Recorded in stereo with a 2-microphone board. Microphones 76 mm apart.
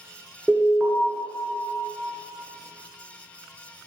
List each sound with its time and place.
0.5 s an alarm: 10° right (ahead or behind), 1.5 m